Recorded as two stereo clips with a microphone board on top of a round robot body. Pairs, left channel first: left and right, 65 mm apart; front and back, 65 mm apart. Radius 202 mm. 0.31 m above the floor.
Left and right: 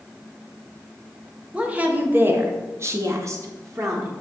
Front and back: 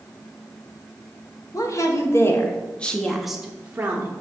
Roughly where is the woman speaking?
Ahead.